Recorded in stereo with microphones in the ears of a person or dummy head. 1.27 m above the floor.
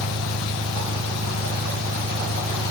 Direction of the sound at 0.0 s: 60° right (ahead or behind).